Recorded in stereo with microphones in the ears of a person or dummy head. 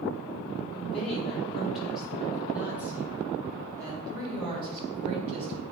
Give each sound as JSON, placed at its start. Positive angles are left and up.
{"t": 0.7, "sound": "a woman speaking", "side_deg": 0, "distance_m": 4.0}